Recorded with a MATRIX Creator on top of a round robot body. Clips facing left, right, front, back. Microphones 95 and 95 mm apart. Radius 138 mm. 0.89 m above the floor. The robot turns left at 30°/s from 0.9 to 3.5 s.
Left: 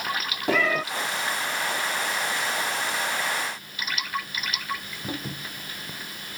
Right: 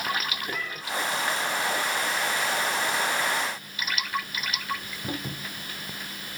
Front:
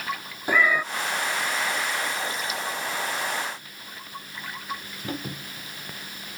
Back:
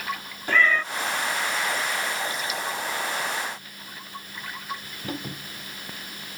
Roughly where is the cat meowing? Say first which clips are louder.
Left 11 dB, even; left.